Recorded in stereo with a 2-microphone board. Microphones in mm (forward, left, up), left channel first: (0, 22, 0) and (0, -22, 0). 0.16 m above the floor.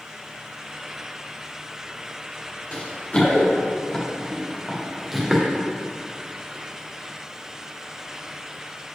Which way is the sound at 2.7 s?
40° left (ahead or behind).